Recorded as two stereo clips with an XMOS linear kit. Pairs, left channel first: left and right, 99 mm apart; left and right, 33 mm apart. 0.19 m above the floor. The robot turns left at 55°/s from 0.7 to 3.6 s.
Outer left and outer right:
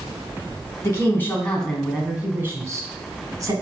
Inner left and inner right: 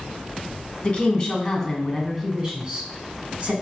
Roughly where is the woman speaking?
Ahead left.